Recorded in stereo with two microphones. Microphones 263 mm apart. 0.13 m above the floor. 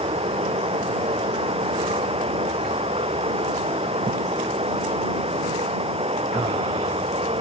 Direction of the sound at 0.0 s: 20° right (ahead or behind).